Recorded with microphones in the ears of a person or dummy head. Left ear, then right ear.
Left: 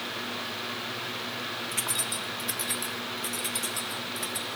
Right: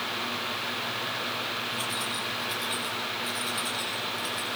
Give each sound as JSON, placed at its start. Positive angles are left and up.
{"t": 1.7, "sound": "keys jangling", "side_deg": 40, "distance_m": 2.0}